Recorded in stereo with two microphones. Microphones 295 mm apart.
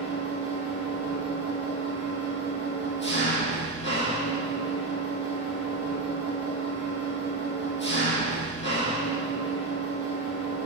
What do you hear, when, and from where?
0.0 s an engine running: 40° left (ahead or behind), 3.5 m